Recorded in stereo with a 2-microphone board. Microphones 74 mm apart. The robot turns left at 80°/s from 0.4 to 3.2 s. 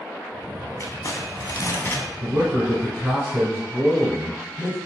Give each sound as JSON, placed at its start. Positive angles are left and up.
{"t": 0.8, "sound": "crumpling", "azimuth_deg": 130, "distance_m": 0.6}
{"t": 2.2, "sound": "a man speaking", "azimuth_deg": -80, "distance_m": 1.4}